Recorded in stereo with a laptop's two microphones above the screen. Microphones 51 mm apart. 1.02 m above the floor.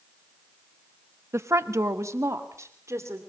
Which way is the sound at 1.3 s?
65° right (ahead or behind).